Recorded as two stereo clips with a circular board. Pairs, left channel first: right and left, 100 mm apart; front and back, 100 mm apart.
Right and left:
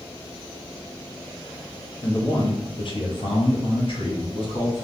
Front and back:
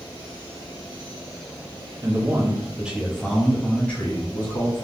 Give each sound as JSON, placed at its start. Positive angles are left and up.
{"t": 2.0, "sound": "a man speaking", "azimuth_deg": -135, "distance_m": 1.0}